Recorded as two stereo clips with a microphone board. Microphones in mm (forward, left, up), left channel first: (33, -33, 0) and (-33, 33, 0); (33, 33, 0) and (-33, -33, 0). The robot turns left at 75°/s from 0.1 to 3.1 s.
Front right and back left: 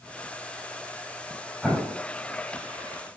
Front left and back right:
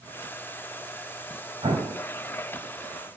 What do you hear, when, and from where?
1.6 s an explosion: 135° right, 5 m; by 2.0 s 165° right, 5 m